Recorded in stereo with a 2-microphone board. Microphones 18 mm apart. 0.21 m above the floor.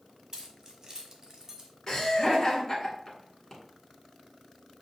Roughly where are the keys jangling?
Right.